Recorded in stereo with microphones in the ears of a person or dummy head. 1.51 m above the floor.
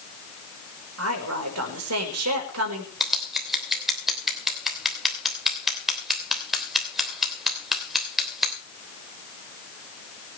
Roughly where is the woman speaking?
Right.